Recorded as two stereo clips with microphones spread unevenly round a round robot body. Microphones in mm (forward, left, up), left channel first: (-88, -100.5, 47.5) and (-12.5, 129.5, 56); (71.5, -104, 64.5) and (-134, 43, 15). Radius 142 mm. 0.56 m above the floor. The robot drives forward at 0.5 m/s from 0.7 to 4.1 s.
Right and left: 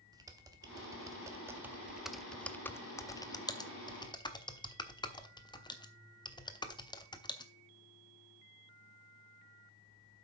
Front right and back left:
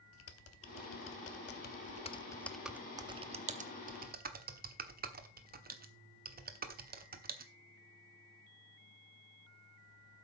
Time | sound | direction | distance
0.1 | typing on a keyboard | 5° right | 1.0 m